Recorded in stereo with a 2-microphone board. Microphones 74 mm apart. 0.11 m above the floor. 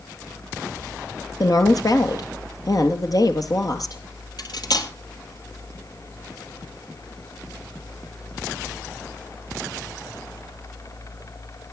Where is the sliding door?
No sliding door in this recording.